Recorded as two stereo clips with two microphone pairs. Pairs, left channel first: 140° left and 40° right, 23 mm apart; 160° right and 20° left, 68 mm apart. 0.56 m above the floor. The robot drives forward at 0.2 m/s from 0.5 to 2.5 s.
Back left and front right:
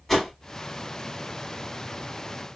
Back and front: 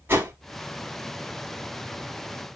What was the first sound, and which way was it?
A whoosh, 65° left.